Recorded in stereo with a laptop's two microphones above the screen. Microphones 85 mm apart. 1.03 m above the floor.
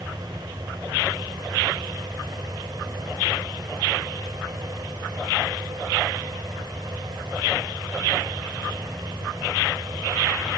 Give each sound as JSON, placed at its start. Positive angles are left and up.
{"t": 0.0, "sound": "a fan", "side_deg": -55}